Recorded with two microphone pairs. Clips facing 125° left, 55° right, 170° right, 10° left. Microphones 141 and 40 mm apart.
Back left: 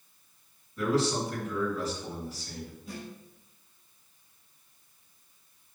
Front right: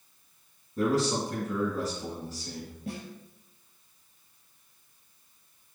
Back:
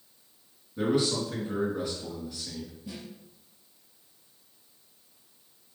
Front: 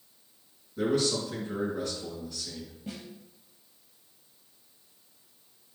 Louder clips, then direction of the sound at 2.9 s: Front right 6 dB, front 1 dB; 45° right.